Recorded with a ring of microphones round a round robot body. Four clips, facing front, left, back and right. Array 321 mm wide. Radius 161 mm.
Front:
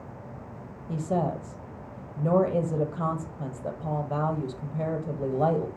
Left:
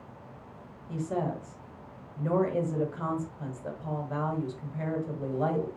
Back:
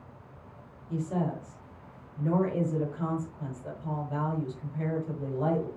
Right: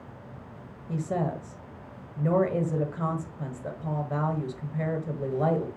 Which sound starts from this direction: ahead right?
A woman speaking, at 0.9 s.